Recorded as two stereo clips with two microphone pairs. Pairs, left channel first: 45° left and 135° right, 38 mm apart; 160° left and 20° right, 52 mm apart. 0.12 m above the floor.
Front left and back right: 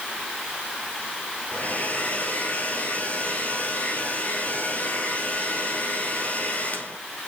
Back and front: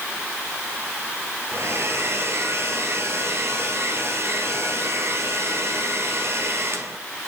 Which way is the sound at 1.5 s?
5° left.